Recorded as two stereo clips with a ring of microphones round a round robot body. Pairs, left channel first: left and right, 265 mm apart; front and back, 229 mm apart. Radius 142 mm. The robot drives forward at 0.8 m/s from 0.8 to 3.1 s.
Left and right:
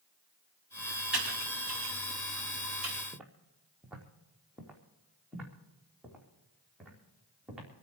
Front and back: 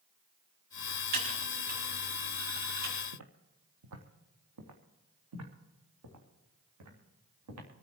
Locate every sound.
1.1 s typing on a keyboard: 175° right, 6.5 m
3.1 s footsteps: 175° right, 1.5 m; by 7.7 s straight behind, 6 m